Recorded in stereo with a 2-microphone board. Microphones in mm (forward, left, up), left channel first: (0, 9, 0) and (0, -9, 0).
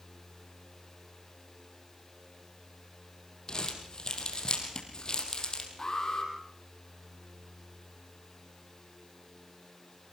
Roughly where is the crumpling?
Left.